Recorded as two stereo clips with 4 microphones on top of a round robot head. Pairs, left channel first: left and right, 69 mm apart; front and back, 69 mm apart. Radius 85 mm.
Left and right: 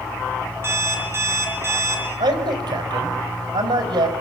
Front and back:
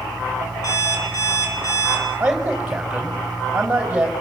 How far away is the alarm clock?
About 5 m.